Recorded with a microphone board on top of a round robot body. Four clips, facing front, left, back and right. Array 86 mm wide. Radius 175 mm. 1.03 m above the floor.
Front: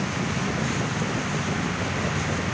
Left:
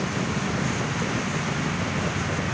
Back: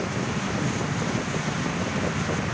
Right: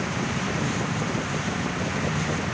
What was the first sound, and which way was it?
Only background noise.